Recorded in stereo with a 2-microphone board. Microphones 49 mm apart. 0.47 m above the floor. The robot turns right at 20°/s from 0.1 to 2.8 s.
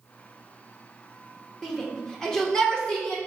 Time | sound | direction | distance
1.6 | a shout | 5° left (ahead or behind) | 1.1 m